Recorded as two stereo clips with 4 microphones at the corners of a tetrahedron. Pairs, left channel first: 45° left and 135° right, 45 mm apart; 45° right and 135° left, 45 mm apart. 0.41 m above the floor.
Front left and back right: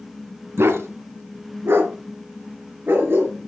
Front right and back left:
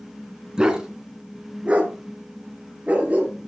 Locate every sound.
0.6 s a dog barking: 150° right, 1.6 m; by 3.5 s 165° right, 3 m